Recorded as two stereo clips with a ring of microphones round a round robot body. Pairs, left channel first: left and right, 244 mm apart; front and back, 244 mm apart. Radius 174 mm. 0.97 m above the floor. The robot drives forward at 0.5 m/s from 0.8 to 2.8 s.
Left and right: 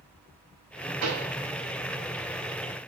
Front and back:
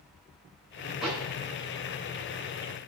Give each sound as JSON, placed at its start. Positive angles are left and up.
{"t": 1.0, "sound": "a pop", "azimuth_deg": -90, "distance_m": 6.5}